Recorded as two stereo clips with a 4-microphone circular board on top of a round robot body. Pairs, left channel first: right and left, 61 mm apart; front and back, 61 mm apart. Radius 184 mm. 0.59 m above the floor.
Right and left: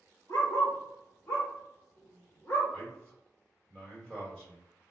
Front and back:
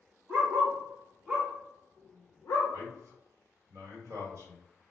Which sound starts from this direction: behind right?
A dog barking, at 0.3 s.